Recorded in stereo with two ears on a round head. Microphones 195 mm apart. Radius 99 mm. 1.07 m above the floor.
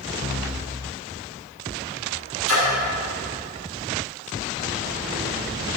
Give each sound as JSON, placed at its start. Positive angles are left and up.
{"t": 2.5, "sound": "a splash", "side_deg": -65, "distance_m": 6.0}